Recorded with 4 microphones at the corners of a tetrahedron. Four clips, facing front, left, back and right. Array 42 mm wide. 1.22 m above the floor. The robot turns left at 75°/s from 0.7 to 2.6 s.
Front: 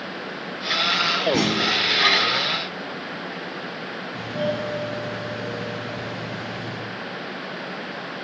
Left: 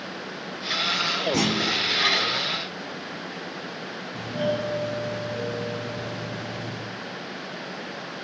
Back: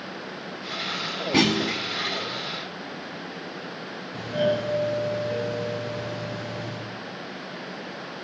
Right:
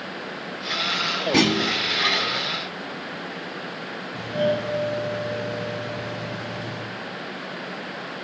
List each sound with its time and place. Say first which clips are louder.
1.3 s a clunk: right 7 dB, front 1 dB; 115° right, 1.6 m; by 1.8 s 150° right, 1.6 m
4.1 s a doorbell: right 3 dB, back 2 dB; 160° right, 6.5 m